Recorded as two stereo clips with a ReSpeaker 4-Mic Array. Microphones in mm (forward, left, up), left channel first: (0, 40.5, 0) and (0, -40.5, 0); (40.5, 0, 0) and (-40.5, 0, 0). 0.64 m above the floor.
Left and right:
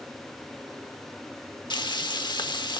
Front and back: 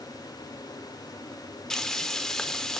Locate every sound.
1.7 s frying: 85° left, 1.2 m